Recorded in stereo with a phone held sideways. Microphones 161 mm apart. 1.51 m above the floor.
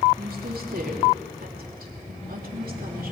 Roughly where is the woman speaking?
Right.